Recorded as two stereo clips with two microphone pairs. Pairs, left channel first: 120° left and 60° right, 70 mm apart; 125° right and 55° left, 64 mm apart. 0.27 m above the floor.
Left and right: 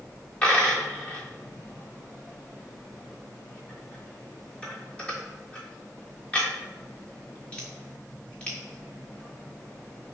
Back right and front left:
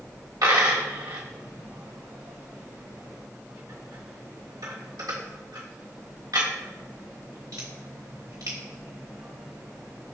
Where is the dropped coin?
45° left, 1.3 m.